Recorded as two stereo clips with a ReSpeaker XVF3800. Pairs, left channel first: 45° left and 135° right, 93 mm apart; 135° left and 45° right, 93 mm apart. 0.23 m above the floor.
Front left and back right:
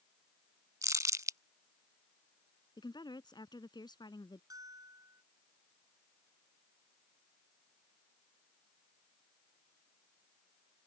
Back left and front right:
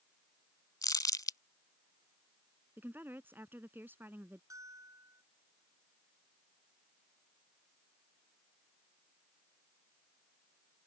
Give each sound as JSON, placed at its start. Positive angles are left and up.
{"t": 0.8, "sound": "crumpling", "azimuth_deg": 175}
{"t": 2.8, "sound": "a woman speaking", "azimuth_deg": 20}
{"t": 4.5, "sound": "a bell", "azimuth_deg": -90}